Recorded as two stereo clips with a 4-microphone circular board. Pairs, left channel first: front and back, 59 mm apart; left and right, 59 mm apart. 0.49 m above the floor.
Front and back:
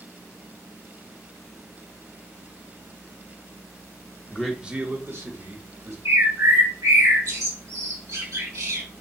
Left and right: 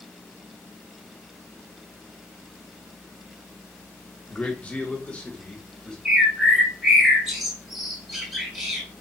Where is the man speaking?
55° left, 0.8 m; by 6.0 s 160° left, 2 m.